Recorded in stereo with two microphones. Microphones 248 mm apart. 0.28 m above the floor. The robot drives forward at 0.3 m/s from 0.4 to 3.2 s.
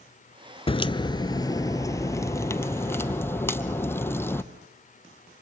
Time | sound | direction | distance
0.7 | a crack | 25° left (ahead or behind) | 0.5 m